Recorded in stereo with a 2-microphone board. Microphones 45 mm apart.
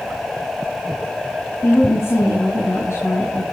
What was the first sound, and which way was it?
A woman speaking, 70° left (ahead or behind).